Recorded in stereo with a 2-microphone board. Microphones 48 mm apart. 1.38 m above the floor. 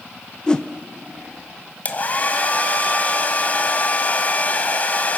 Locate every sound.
0.5 s a whoosh: 20° left (ahead or behind), 0.7 m
1.9 s a hair dryer: 35° left (ahead or behind), 1.6 m